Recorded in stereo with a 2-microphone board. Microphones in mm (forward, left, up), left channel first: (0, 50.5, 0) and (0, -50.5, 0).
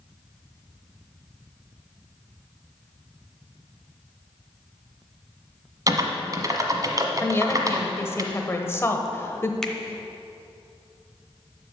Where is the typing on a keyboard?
35° right (ahead or behind), 1.1 m.